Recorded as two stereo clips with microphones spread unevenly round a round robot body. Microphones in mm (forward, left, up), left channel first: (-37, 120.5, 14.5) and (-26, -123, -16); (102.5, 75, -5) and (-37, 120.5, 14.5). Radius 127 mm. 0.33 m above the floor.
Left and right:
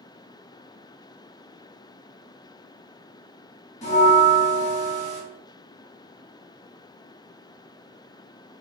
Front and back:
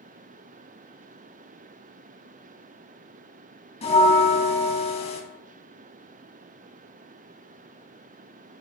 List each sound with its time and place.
3.8 s a bell: 25° left, 1.2 m